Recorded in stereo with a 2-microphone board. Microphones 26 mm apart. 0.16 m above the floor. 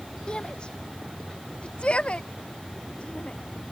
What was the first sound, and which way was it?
A shout, 40° left (ahead or behind).